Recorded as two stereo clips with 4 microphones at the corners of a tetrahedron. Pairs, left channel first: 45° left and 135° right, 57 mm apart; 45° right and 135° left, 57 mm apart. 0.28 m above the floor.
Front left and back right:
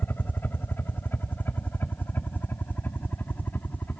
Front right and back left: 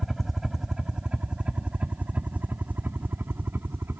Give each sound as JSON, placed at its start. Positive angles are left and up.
{"t": 0.0, "sound": "a helicopter", "azimuth_deg": 50}